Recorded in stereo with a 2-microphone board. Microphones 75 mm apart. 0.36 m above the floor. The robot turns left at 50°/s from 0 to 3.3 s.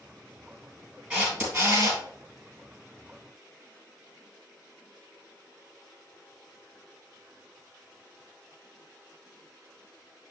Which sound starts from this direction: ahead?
A camera shutter, at 1.1 s.